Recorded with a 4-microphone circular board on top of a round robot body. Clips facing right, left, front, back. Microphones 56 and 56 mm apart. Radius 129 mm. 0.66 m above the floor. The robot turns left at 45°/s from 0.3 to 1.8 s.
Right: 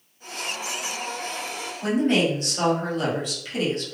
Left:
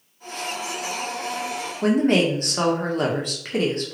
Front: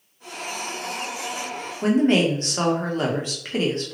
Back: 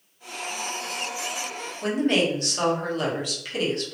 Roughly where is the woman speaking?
Ahead left.